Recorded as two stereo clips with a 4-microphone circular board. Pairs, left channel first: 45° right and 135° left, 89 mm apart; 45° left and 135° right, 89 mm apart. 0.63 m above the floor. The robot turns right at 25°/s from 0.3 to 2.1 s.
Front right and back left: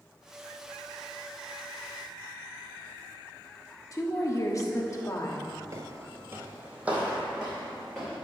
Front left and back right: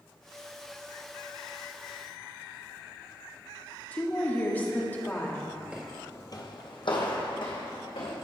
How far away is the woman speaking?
About 1.0 m.